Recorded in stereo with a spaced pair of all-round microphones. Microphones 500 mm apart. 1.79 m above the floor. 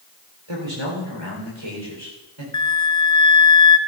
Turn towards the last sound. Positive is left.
turn(degrees=35)  # may be behind; listen again after turning